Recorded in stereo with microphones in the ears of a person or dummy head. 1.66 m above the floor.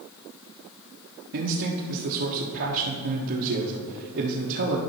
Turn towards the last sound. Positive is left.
turn(degrees=-65)  # may be behind; listen again after turning